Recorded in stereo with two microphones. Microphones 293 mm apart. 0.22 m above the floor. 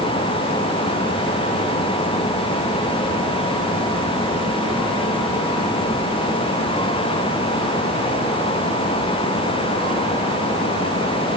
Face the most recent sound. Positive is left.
No sound to turn to.